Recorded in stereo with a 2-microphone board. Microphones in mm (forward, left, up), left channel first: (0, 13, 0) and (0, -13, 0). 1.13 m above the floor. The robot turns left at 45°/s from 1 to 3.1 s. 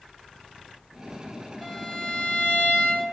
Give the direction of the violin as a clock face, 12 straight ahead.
6 o'clock.